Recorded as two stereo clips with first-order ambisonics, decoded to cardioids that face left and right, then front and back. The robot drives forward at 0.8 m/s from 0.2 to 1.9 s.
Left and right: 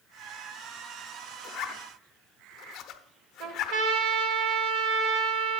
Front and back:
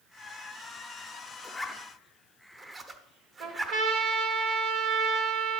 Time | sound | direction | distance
1.4 | a zipper | 70° left | 0.6 m
3.4 | a trumpet | 130° right | 1.2 m